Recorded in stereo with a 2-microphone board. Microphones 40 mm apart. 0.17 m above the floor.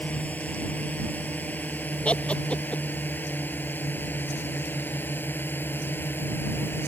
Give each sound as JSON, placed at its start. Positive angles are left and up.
{"t": 0.0, "sound": "a drone", "side_deg": 40}
{"t": 2.0, "sound": "laughter", "side_deg": 30}